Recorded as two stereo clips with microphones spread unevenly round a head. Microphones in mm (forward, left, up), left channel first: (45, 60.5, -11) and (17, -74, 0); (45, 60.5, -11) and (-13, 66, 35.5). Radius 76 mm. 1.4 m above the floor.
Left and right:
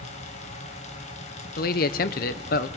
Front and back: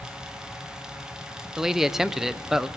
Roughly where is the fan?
Ahead left.